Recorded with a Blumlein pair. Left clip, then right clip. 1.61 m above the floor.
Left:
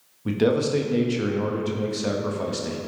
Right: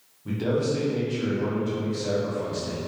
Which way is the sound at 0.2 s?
30° left.